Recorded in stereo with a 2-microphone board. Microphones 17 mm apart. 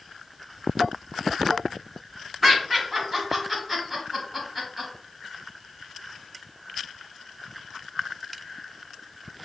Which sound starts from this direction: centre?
Laughter, at 2.4 s.